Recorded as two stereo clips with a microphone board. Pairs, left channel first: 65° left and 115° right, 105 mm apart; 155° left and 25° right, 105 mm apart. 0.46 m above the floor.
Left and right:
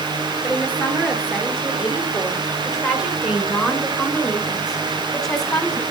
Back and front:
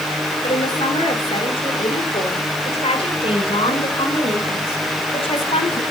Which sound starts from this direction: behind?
A woman speaking, at 0.4 s.